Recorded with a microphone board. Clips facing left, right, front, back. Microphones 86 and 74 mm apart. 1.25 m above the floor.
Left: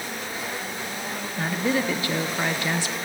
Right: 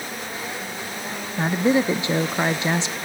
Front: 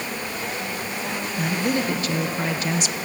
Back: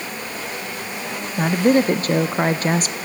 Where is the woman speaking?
155° right, 0.6 m.